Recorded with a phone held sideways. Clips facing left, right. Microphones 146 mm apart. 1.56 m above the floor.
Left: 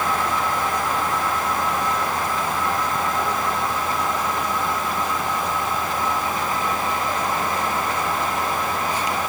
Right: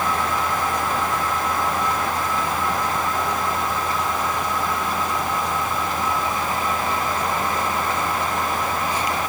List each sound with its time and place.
Only background noise.